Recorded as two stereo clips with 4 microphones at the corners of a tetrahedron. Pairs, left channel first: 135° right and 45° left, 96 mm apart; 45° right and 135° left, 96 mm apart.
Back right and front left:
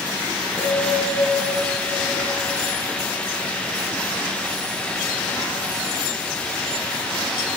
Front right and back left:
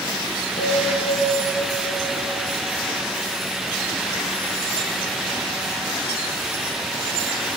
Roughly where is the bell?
Ahead right.